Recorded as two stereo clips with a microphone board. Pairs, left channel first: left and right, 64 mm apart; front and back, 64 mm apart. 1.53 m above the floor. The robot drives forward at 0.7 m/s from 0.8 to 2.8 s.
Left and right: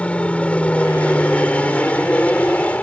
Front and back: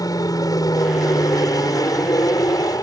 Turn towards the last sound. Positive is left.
turn(degrees=20)